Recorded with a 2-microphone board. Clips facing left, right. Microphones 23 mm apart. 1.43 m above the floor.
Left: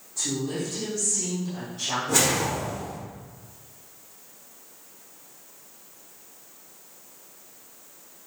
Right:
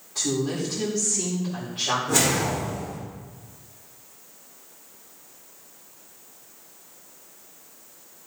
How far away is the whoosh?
About 2.5 m.